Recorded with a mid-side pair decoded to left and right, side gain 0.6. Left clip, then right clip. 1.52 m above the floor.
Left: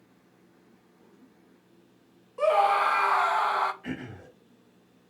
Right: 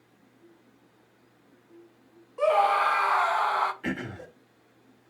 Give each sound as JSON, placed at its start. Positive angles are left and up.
{"t": 2.4, "sound": "a scream", "azimuth_deg": 0, "distance_m": 0.7}
{"t": 3.8, "sound": "throat clearing", "azimuth_deg": -55, "distance_m": 1.7}